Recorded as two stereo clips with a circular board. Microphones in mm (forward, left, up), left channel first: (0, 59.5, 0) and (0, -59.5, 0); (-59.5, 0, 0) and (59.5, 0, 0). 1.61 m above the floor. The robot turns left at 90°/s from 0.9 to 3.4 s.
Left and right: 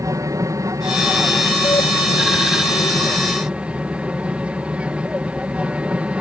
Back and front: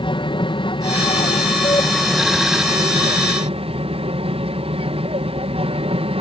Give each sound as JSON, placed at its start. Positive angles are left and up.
{"t": 0.0, "sound": "an aircraft", "azimuth_deg": -145}